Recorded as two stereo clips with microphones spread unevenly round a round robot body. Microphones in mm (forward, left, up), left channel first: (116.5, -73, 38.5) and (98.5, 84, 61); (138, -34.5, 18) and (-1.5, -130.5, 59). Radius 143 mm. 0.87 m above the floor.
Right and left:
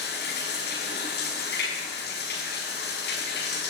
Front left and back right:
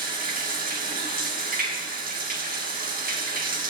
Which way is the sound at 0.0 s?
110° right.